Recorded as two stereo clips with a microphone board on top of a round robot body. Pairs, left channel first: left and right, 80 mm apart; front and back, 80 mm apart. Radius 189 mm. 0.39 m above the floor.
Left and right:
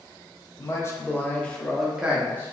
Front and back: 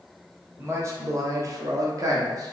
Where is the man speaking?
130° left, 1.3 m; by 2.5 s 145° right, 1.2 m.